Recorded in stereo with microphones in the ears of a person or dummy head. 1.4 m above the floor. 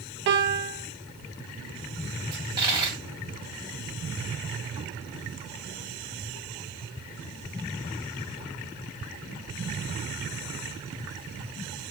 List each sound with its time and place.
0.3 s a piano: 50° right (ahead or behind), 0.8 m
2.3 s a dropped coin: 20° right (ahead or behind), 1.9 m